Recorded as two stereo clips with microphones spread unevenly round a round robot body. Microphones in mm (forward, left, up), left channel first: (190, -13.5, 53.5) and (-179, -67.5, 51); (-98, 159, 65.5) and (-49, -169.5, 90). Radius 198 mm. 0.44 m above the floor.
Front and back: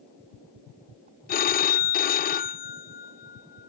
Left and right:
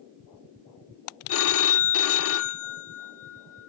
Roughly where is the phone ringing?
Left.